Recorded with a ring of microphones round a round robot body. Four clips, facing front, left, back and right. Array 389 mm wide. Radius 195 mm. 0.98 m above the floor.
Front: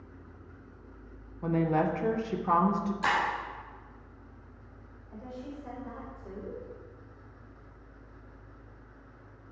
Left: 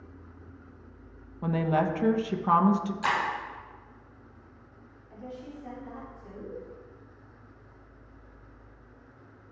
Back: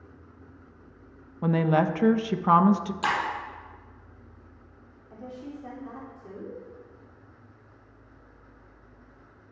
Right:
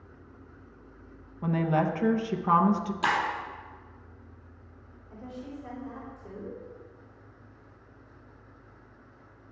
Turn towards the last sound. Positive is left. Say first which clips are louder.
# right 1 dB, back 2 dB
turn(degrees=-170)